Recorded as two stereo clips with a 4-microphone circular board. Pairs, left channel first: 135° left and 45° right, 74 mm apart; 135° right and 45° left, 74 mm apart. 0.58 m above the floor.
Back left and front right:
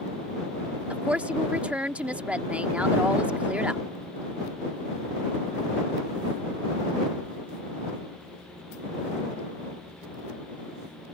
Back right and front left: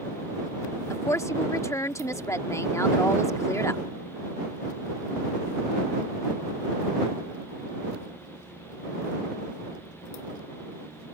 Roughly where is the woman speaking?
Right.